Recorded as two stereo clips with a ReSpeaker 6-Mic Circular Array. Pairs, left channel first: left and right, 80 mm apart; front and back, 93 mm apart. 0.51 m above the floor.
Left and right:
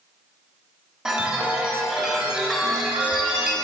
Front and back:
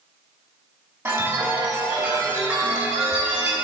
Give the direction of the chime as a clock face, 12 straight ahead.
5 o'clock.